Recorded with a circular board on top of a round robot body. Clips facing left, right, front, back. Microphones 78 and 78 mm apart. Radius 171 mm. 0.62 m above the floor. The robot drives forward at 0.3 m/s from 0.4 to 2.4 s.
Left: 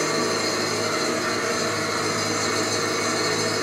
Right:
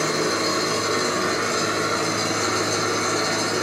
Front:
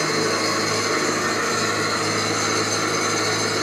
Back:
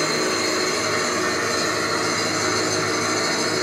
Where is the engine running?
80° right, 1.1 m; by 3.6 s 115° right, 1.2 m.